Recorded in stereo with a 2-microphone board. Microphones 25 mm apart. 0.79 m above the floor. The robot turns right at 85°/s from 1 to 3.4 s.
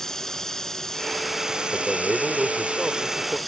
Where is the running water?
165° left; by 3.5 s 5° left.